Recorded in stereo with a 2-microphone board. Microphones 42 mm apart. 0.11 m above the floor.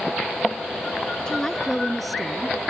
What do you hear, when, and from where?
1.3 s a woman speaking: 15° left (ahead or behind); by 2.6 s 5° right (ahead or behind)